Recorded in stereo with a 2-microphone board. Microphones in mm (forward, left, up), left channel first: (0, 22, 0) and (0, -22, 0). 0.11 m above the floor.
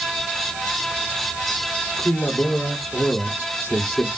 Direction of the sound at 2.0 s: 65° left (ahead or behind).